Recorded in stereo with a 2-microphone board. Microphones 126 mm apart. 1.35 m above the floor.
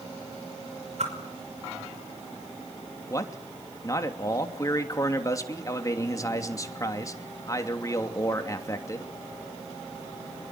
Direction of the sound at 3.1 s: 30° left (ahead or behind).